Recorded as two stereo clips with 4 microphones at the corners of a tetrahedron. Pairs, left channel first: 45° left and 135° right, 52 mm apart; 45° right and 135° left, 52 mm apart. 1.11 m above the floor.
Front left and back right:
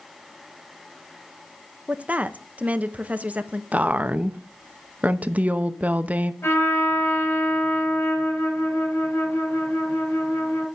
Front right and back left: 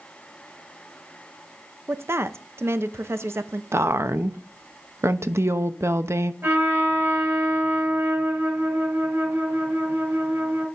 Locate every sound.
1.9 s a woman speaking: 165° left, 0.9 m
3.7 s a woman speaking: 165° left, 0.8 m
6.4 s a trumpet: 85° left, 6 m